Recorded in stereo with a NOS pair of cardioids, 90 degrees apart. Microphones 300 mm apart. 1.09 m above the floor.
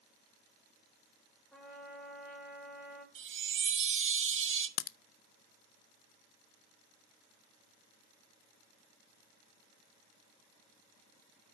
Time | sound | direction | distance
1.5 | a trumpet | 5° left | 3.5 m
3.1 | a chime | 45° right | 1.2 m
4.8 | a crack | 60° left | 0.5 m